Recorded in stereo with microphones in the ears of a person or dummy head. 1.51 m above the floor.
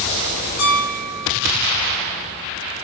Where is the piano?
65° left (ahead or behind), 2.5 m.